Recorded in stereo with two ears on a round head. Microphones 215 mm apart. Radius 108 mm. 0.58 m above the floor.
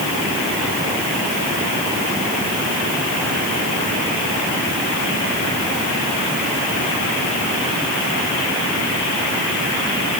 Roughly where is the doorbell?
No doorbell in this recording.